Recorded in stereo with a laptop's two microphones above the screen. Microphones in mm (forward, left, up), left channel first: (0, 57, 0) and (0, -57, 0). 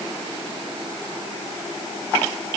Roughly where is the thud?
I don't hear a thud.